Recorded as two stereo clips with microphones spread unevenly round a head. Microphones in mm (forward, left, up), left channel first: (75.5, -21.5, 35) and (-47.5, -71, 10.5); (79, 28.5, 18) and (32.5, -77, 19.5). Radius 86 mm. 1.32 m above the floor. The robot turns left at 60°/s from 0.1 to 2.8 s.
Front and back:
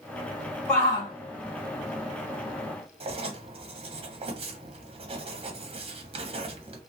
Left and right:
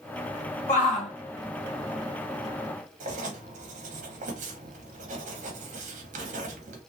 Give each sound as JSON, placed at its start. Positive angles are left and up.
{"t": 0.7, "sound": "a shout", "azimuth_deg": 105, "distance_m": 1.8}
{"t": 3.0, "sound": "writing", "azimuth_deg": -115, "distance_m": 1.2}